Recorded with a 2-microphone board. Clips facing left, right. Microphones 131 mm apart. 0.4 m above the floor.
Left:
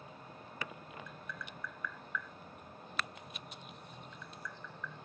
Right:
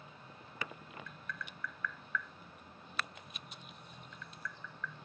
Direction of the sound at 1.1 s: 15° left (ahead or behind).